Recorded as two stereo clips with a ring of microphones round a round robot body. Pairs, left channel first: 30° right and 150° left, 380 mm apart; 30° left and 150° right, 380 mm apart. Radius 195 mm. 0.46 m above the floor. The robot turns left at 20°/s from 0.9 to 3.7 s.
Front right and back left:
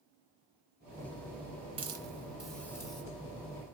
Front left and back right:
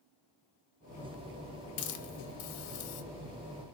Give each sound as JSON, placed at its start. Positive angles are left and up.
{"t": 1.8, "sound": "a hiss", "azimuth_deg": 75, "distance_m": 0.7}